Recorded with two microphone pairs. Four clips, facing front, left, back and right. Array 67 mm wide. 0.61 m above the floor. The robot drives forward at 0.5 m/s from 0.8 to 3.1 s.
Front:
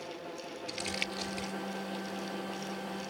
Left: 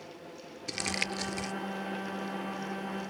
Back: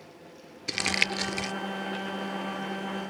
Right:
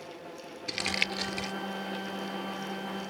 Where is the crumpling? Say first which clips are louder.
Right 2 dB, back 10 dB; 165° right; by 1.5 s 170° right.